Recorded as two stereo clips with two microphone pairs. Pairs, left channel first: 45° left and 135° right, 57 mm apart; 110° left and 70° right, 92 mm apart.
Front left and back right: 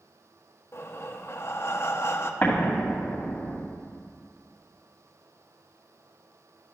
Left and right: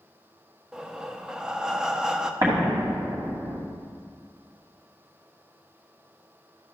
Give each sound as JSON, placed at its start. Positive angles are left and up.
{"t": 0.7, "sound": "breathing", "azimuth_deg": 10, "distance_m": 0.5}
{"t": 2.4, "sound": "an explosion", "azimuth_deg": -15, "distance_m": 2.5}